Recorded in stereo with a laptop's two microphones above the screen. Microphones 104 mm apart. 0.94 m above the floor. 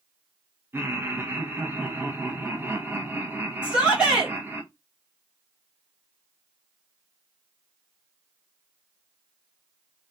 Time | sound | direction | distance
0.7 | laughter | 20° right (ahead or behind) | 0.6 m
3.6 | a shout | 10° right (ahead or behind) | 1.2 m